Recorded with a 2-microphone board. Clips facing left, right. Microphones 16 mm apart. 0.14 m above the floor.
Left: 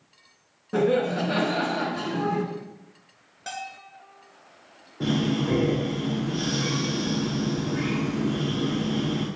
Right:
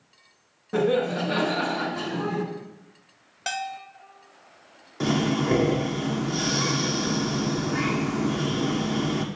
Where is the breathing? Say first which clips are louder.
Right 1 dB; 75° right (ahead or behind), 1.3 m.